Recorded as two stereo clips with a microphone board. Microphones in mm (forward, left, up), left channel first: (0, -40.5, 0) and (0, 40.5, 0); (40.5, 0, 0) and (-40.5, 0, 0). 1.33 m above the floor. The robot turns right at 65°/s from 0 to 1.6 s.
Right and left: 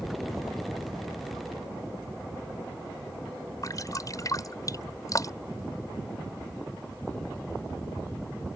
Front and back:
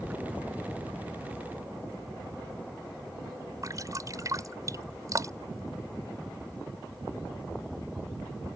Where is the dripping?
135° right.